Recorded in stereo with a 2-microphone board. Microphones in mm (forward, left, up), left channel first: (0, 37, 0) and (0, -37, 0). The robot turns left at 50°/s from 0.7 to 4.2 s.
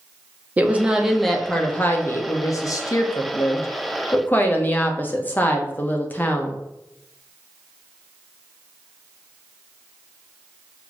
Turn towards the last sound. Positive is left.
turn(degrees=30)